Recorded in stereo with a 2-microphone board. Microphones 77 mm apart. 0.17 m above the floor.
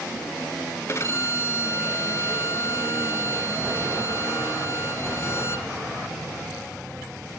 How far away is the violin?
About 1.0 m.